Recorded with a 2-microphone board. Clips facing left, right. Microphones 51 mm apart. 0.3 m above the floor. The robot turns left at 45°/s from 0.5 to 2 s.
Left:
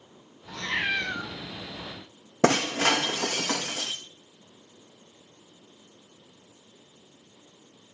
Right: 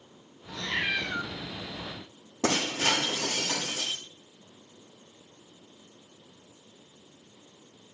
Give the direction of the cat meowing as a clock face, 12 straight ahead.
9 o'clock.